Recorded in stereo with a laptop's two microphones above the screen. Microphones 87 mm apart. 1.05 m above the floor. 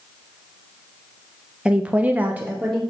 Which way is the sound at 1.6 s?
10° right (ahead or behind).